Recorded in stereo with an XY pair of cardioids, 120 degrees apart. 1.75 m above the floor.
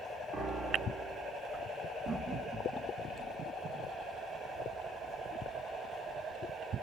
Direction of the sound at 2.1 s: 25° right.